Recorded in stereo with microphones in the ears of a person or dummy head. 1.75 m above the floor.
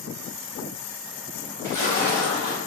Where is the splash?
15° left (ahead or behind), 1.9 m.